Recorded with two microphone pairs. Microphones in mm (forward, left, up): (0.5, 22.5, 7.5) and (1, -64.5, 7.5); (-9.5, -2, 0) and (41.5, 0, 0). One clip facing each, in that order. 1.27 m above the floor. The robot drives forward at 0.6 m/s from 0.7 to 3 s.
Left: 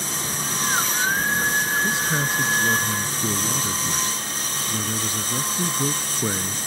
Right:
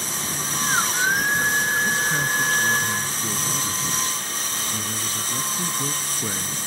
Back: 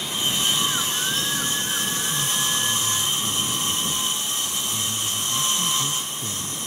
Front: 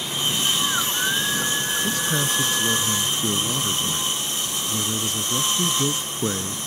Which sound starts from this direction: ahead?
A man speaking, at 1.8 s.